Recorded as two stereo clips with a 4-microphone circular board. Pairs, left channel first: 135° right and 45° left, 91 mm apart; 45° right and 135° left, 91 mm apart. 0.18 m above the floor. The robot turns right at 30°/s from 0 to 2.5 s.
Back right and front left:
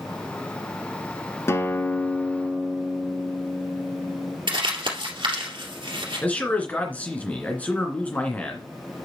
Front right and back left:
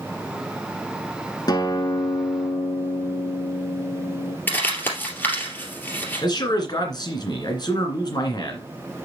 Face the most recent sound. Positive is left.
turn(degrees=-65)